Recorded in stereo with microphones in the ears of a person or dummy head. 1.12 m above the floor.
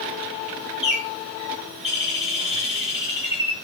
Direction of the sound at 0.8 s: Centre (ahead or behind).